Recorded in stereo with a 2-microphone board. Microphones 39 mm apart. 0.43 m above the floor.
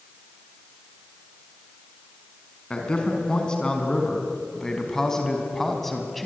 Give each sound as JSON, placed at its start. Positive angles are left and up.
{"t": 2.7, "sound": "a man speaking", "side_deg": 25, "distance_m": 5.5}